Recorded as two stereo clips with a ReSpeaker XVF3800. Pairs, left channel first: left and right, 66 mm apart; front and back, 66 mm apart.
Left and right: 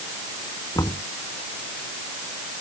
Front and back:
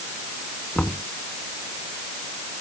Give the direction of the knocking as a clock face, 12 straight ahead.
10 o'clock.